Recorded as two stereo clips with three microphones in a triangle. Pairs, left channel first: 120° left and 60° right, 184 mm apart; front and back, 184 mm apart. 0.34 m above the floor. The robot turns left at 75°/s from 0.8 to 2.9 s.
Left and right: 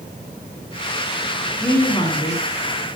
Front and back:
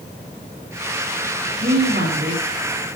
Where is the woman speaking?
155° right, 4.5 m; by 2.9 s 110° left, 4.5 m.